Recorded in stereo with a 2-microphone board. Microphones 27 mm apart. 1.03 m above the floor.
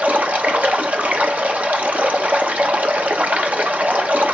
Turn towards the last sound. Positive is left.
turn(degrees=-65)  # may be behind; listen again after turning